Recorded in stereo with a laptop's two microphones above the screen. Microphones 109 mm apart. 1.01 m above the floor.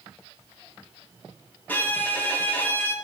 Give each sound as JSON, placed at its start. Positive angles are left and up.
{"t": 1.7, "sound": "a violin", "side_deg": 15, "distance_m": 0.6}